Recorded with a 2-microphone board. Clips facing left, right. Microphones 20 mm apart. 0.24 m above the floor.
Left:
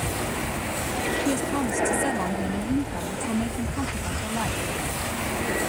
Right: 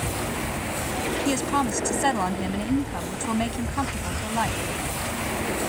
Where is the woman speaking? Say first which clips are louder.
Right 1 dB; 40° right (ahead or behind).